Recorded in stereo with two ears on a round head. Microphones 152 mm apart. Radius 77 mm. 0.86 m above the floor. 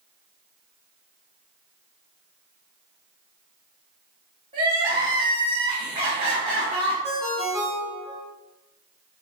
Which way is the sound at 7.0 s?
Centre (ahead or behind).